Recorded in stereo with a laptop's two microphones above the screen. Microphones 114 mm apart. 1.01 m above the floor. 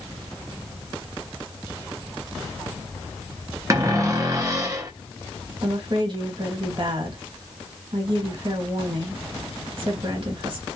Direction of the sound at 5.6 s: 50° right (ahead or behind).